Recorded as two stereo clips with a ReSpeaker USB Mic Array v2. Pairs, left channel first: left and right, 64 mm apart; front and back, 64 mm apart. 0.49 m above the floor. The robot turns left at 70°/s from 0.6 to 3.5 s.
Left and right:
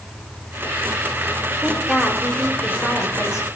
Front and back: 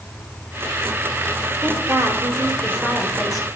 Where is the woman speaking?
150° right, 1.8 m; by 3.5 s 80° left, 1.8 m.